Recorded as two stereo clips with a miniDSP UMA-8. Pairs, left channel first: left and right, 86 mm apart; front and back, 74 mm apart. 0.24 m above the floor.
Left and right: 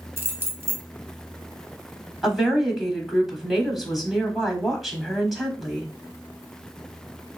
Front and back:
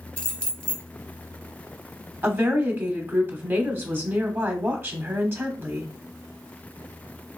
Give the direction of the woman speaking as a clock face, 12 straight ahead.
6 o'clock.